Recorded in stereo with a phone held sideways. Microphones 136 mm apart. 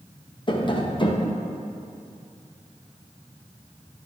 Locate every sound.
0.5 s tapping: 35° left (ahead or behind), 0.7 m